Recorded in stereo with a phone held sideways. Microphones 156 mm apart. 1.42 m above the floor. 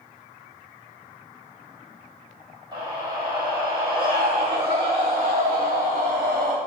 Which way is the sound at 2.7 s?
30° right (ahead or behind).